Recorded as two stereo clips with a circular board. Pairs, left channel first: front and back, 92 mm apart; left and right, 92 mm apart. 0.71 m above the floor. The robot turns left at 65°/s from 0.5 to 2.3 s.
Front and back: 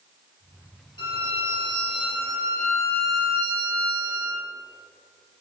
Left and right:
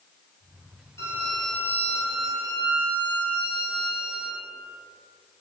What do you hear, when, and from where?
1.0 s a violin: 30° left, 2.5 m; by 4.4 s 55° right, 2.5 m